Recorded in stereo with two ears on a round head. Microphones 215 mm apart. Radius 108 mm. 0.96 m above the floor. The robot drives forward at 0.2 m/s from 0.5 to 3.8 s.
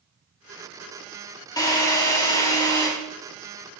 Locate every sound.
1.6 s a drill: 15° left (ahead or behind), 3.5 m